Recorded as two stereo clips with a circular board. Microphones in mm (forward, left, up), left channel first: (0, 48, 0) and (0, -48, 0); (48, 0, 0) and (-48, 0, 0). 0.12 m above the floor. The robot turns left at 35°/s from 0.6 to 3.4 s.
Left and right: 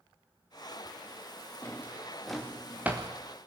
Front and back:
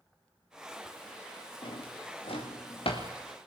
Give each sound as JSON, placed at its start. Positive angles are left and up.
{"t": 1.6, "sound": "a drawer", "azimuth_deg": 25, "distance_m": 4.5}